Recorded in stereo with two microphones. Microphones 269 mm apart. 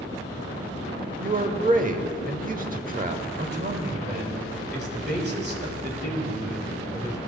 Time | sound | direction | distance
1.2 | a man speaking | 35° right (ahead or behind) | 0.9 m
3.4 | a man speaking | 40° right (ahead or behind) | 1.7 m